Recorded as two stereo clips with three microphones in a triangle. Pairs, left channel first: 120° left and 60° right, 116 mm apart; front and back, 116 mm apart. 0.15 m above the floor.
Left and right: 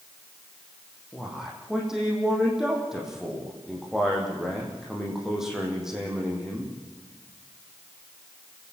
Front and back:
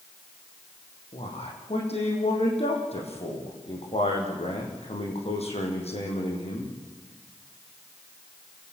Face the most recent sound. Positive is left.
turn(degrees=25)